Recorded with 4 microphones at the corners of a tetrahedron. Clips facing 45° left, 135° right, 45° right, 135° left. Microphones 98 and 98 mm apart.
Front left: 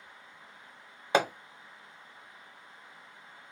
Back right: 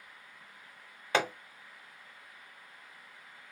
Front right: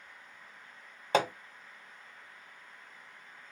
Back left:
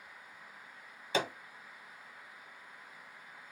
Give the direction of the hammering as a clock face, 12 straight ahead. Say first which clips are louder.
Front left 3 dB, front right 6 dB; 1 o'clock.